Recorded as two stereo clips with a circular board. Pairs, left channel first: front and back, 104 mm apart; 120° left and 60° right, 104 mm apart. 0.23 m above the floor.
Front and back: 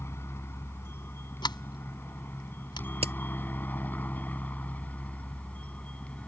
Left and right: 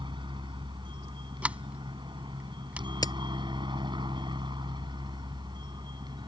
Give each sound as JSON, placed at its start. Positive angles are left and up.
{"t": 0.0, "sound": "a helicopter", "azimuth_deg": -60}
{"t": 1.4, "sound": "a sliding door", "azimuth_deg": 15}
{"t": 3.0, "sound": "a crack", "azimuth_deg": 170}